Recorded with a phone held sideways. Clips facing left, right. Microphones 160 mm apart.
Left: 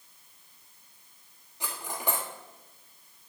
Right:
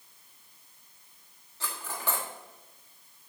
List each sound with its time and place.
1.6 s cutlery clinking: 15° left (ahead or behind), 1.6 m